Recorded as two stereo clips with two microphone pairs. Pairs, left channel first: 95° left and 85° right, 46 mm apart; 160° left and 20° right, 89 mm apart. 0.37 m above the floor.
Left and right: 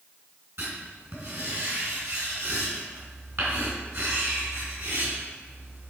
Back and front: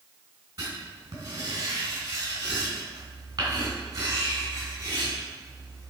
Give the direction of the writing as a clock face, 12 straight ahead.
2 o'clock.